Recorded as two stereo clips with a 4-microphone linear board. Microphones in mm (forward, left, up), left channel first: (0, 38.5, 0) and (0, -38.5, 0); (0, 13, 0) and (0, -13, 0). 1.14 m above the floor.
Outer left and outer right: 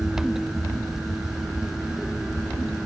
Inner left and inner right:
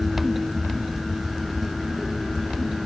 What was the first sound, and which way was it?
Only background noise.